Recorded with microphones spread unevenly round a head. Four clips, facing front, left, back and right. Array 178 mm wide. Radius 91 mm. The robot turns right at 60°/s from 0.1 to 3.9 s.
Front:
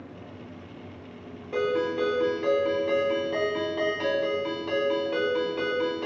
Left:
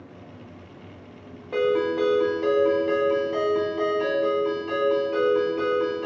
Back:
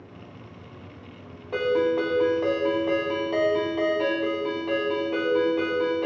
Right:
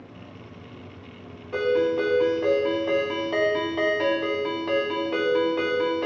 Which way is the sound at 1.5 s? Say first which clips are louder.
Even, back 3 dB; 140° left.